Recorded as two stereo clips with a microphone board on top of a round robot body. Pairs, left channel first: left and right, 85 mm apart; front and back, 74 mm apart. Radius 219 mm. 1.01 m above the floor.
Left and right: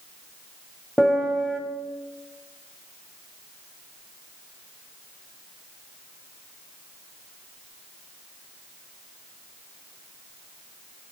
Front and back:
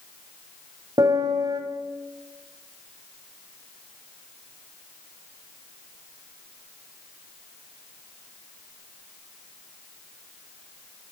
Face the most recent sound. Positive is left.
turn(degrees=170)